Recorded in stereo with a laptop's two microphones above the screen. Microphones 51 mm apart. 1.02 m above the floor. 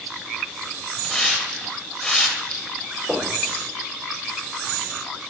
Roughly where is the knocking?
Centre.